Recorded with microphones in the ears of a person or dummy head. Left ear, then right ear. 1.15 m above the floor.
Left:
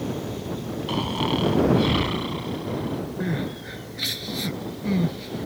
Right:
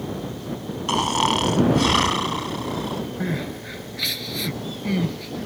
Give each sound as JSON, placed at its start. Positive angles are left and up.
{"t": 0.9, "sound": "snoring", "side_deg": -45}
{"t": 3.2, "sound": "crying", "side_deg": -10}